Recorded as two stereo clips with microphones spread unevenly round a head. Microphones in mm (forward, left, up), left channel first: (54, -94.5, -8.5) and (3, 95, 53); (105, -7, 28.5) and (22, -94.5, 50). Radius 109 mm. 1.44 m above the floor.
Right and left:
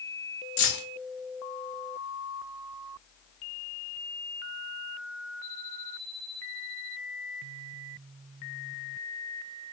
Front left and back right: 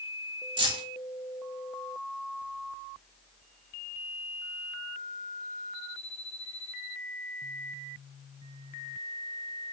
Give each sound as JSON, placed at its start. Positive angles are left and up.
{"t": 0.6, "sound": "keys jangling", "azimuth_deg": -120, "distance_m": 0.8}